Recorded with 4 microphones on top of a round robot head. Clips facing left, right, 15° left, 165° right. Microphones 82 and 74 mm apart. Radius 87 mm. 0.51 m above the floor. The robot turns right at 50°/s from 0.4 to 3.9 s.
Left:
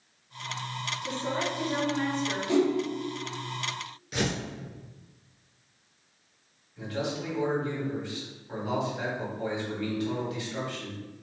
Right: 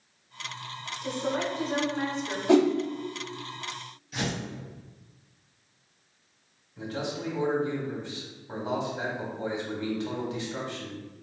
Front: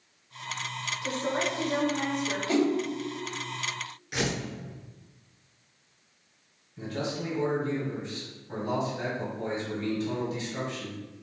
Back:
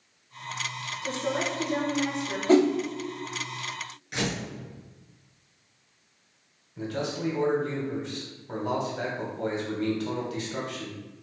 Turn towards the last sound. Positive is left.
turn(degrees=-150)